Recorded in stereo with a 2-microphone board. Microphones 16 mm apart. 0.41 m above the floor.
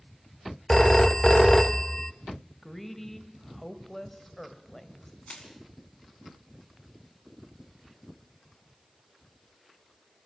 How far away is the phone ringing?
About 0.6 m.